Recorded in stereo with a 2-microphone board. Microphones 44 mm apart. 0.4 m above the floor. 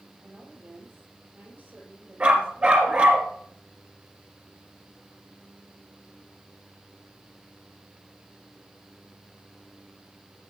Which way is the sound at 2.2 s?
30° right (ahead or behind).